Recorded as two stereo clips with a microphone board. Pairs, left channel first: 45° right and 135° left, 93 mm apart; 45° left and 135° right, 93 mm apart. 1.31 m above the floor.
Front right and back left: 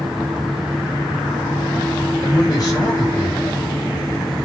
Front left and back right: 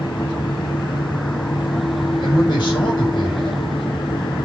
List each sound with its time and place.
2.2 s a man speaking: 5° left, 9 m